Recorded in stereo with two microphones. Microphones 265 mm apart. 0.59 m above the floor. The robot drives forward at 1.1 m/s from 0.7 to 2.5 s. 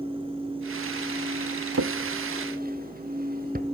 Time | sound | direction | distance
1.7 | a drawer | 70° right (ahead or behind) | 0.8 m